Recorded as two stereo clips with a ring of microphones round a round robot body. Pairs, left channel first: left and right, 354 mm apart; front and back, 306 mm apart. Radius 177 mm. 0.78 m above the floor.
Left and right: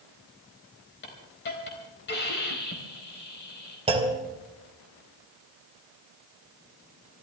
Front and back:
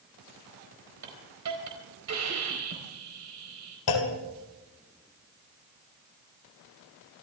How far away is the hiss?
About 4 m.